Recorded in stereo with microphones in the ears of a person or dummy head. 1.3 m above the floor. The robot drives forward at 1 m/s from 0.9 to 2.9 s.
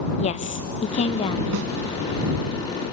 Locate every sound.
0.2 s a woman speaking: 35° left (ahead or behind), 1.2 m; by 1.4 s 25° left (ahead or behind), 1.6 m
1.5 s a snare drum: 70° right (ahead or behind), 3 m